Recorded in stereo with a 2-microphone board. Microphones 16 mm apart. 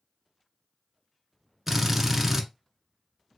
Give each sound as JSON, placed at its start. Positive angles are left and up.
{"t": 1.7, "sound": "a drill", "side_deg": -10, "distance_m": 0.8}